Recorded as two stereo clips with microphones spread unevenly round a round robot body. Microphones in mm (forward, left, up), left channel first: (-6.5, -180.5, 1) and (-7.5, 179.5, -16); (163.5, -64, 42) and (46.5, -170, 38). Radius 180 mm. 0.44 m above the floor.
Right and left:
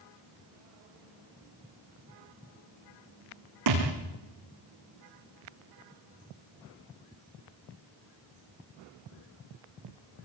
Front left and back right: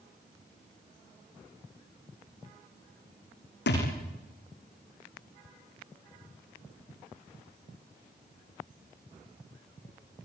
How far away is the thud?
About 6.5 m.